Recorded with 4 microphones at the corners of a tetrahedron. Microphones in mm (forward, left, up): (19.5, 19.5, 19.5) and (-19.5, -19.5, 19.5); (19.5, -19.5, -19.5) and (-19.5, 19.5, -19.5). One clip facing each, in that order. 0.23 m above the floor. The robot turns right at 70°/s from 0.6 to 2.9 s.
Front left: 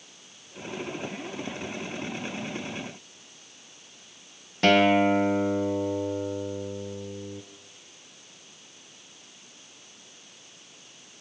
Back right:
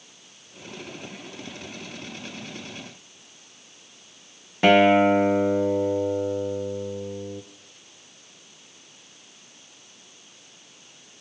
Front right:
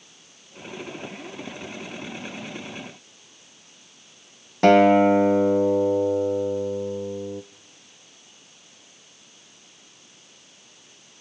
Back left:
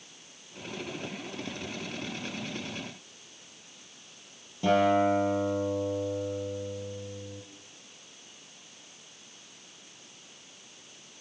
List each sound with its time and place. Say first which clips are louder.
4.6 s a guitar: back right 4 dB, front right 9 dB; 60° right, 1.3 m